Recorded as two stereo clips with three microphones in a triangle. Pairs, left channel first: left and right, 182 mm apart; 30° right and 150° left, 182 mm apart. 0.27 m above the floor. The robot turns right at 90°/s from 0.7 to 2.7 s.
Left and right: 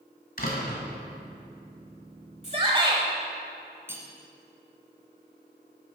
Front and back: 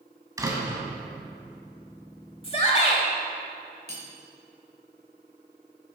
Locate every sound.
0.4 s a door slam: 85° left, 1.7 m; by 0.8 s 95° left, 1.7 m
2.4 s a shout: 70° right, 1.1 m; by 3.0 s 50° right, 1.1 m
3.9 s cutlery clinking: 15° right, 1.3 m